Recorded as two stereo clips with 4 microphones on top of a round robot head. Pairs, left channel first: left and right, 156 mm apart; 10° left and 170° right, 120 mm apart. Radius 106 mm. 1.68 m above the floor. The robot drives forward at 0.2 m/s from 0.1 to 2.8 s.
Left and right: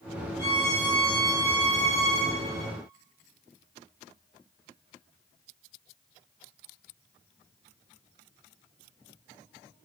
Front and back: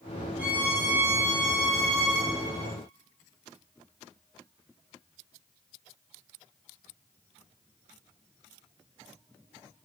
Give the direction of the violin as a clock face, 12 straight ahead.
8 o'clock.